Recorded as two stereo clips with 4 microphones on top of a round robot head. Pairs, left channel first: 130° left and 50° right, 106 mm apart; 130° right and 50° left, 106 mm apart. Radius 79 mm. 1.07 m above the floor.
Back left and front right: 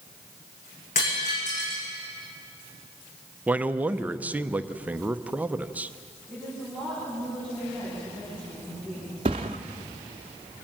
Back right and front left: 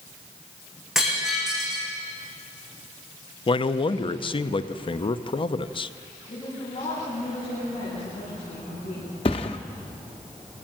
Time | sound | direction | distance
0.9 | breaking glass | 140° left | 9.5 m
3.5 | a man speaking | 125° right | 0.8 m
6.3 | a woman speaking | 160° right | 9 m
9.2 | a thud | 90° right | 0.8 m